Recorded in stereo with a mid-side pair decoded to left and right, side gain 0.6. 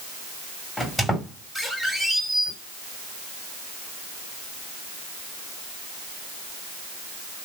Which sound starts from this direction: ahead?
A squeak, at 0.8 s.